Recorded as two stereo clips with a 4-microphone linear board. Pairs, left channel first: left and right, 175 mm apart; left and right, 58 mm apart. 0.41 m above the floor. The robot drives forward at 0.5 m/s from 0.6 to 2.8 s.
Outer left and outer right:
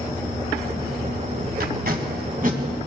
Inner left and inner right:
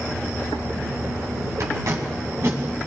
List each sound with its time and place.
1.6 s tape being pulled: 60° right (ahead or behind), 1.9 m; by 2.6 s 50° right (ahead or behind), 2 m